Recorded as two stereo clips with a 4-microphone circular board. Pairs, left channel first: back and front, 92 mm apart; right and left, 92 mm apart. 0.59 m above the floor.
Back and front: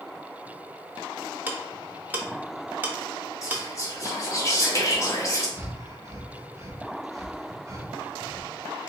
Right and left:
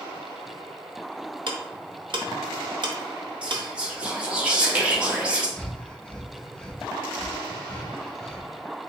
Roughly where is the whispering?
Behind.